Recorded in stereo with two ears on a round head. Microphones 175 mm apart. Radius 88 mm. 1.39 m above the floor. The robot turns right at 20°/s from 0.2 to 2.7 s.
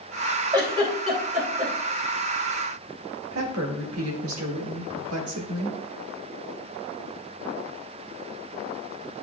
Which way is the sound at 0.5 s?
25° right (ahead or behind).